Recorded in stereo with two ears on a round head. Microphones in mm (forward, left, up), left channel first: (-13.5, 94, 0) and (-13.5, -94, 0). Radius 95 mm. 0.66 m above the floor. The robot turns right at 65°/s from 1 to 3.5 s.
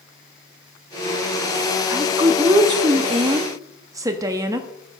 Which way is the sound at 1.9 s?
10° right (ahead or behind).